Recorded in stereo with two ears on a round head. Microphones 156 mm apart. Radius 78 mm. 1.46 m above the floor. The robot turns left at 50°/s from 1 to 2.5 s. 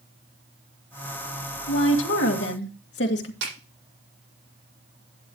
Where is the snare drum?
75° right (ahead or behind), 8.5 m.